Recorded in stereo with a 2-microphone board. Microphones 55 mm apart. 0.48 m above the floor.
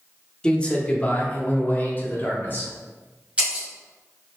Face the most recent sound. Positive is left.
turn(degrees=-20)  # may be behind; listen again after turning